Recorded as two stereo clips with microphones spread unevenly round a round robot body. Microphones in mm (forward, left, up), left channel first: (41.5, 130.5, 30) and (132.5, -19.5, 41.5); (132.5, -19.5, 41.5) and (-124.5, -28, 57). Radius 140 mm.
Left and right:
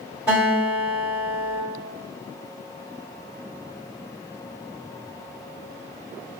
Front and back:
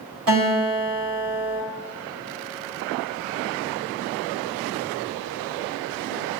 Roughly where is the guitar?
Behind right.